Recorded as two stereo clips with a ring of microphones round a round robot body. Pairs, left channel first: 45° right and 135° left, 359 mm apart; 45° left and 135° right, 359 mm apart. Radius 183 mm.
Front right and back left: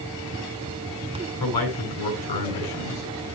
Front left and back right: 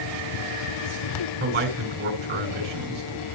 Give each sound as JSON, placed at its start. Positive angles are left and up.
{"t": 1.4, "sound": "a man speaking", "azimuth_deg": -70, "distance_m": 6.5}